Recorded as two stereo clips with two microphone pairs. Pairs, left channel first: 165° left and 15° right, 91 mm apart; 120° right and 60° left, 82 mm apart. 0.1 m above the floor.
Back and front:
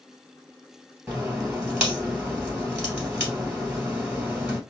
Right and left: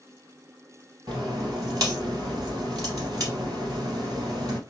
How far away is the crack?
About 2 m.